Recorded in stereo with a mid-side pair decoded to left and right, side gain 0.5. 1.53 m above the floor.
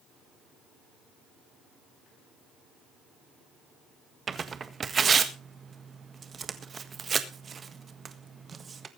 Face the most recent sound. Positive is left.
turn(degrees=-35)